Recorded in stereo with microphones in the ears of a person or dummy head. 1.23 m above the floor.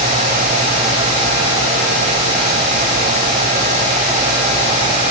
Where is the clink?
No clink in this recording.